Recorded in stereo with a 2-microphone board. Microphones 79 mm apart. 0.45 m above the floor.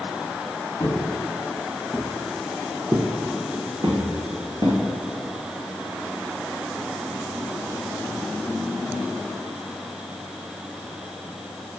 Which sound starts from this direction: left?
Footsteps, at 0.8 s.